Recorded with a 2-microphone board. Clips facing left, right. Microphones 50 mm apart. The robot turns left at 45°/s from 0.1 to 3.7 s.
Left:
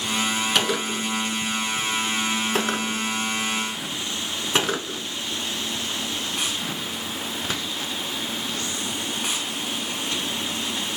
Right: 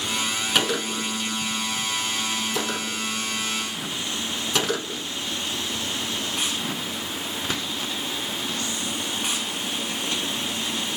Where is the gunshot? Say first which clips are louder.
Left 1 dB; centre (ahead or behind), 0.8 m; by 5.0 s 30° left (ahead or behind), 0.8 m.